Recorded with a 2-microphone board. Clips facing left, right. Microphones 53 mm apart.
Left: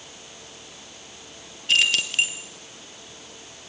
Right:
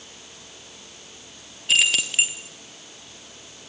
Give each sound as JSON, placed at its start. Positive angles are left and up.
{"t": 1.7, "sound": "keys jangling", "side_deg": 0, "distance_m": 1.5}